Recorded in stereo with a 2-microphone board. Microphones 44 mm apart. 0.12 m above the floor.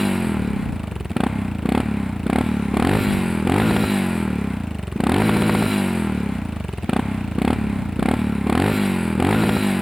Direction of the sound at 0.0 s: 5° right (ahead or behind).